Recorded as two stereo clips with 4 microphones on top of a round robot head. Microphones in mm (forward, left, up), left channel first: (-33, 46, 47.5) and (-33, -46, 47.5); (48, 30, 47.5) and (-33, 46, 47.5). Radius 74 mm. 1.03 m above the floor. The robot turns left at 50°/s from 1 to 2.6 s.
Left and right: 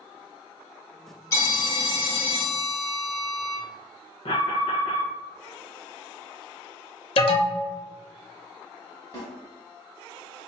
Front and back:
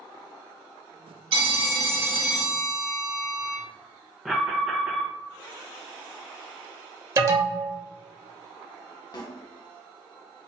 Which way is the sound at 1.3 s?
145° left.